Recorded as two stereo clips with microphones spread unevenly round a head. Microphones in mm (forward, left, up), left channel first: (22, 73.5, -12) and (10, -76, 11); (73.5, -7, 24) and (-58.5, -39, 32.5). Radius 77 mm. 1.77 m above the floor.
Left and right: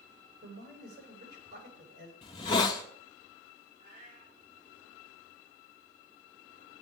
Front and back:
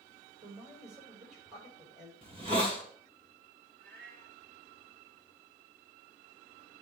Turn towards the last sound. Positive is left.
turn(degrees=-145)